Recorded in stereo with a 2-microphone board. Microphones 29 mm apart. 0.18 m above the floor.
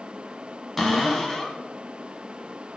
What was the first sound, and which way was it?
A cupboard door, 5° left (ahead or behind).